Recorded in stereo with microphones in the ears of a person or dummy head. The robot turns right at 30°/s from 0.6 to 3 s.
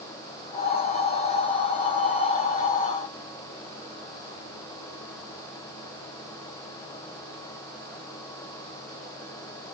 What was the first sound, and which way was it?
Only background noise.